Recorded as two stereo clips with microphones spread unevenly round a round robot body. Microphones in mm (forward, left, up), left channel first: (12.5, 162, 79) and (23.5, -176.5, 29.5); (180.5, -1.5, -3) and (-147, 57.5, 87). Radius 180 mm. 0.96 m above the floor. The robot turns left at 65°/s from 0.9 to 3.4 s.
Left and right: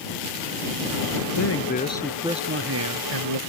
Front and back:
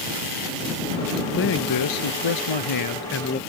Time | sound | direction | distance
1.4 | a man speaking | 50° left | ?